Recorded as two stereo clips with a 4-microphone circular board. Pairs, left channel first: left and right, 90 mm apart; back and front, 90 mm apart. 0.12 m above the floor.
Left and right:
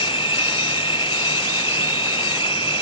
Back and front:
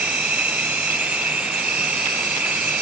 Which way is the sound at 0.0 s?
75° left.